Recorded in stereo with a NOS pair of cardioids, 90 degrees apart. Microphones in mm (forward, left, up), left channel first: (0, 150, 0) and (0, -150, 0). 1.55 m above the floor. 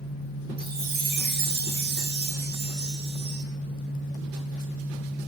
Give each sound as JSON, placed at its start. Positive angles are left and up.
{"t": 0.6, "sound": "a chime", "azimuth_deg": -40, "distance_m": 8.0}